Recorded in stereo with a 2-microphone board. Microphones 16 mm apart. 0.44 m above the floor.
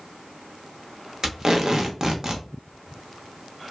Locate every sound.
1.2 s tape being pulled: 40° right (ahead or behind), 0.5 m